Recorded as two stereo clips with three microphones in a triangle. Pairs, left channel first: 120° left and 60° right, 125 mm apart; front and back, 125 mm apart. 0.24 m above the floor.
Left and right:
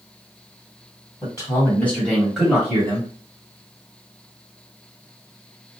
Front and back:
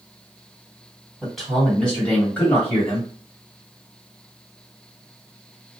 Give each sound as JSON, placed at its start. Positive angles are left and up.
{"t": 1.2, "sound": "a man speaking", "azimuth_deg": 90, "distance_m": 1.9}